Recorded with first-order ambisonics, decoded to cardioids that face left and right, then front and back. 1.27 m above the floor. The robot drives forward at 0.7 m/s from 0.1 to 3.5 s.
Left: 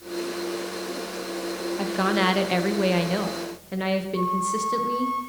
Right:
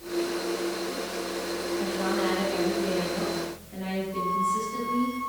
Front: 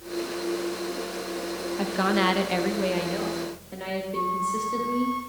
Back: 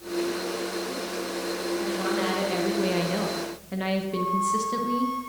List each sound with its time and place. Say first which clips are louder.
1.8 s a woman speaking: left 6 dB, front 6 dB; 45° left, 1.1 m; by 5.1 s 120° left, 0.9 m
4.1 s a flute: right 3 dB, back 1 dB; 130° right, 4 m